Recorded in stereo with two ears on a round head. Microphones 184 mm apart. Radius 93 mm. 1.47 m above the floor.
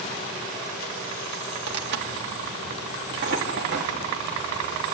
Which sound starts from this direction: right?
Tearing paper, at 1.7 s.